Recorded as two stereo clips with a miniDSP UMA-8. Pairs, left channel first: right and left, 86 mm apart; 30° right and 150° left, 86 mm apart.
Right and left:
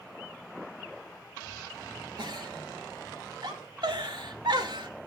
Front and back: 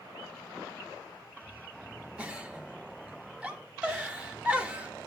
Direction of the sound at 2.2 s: 75° left.